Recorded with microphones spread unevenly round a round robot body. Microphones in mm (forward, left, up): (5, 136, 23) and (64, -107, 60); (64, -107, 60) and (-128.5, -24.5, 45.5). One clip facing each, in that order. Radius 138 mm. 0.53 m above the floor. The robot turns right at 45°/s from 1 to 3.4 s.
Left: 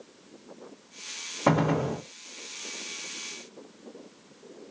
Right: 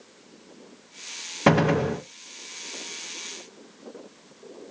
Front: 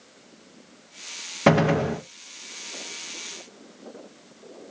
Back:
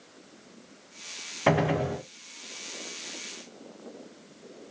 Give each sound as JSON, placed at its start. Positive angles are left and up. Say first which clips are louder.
{"t": 1.5, "sound": "a gunshot", "louder": "right 4 dB, front 5 dB", "azimuth_deg": -50, "distance_m": 0.5}